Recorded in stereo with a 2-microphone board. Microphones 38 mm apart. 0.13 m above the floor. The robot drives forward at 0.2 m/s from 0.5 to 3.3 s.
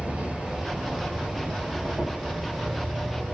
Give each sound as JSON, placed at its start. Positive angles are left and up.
{"t": 0.0, "sound": "an insect", "side_deg": -30, "distance_m": 1.3}